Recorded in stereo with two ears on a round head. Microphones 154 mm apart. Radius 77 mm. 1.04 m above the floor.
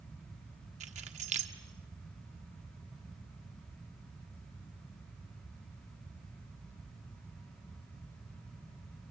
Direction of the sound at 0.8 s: 40° right (ahead or behind).